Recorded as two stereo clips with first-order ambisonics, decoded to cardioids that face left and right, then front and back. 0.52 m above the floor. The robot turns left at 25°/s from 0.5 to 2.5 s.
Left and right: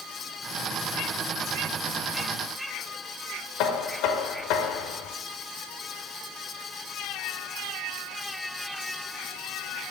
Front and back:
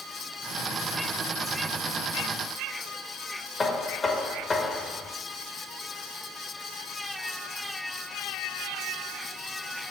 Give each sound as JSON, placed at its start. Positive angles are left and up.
{"t": 3.6, "sound": "knocking", "azimuth_deg": 75, "distance_m": 1.0}